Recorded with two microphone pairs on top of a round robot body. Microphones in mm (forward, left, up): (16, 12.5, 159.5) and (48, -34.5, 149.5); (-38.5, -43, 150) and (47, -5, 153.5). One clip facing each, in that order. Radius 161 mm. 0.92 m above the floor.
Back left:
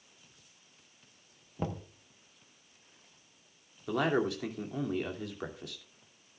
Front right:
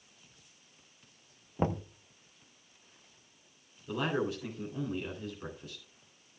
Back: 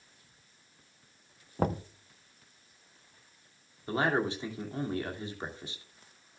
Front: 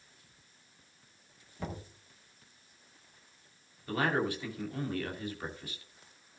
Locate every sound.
1.6 s knocking: 115° right, 0.6 m
3.9 s a man speaking: 135° left, 2.5 m